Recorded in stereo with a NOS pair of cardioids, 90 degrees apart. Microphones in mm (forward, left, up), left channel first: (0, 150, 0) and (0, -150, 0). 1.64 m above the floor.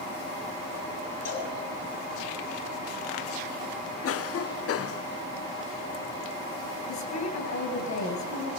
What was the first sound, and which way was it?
A cowbell, 60° left.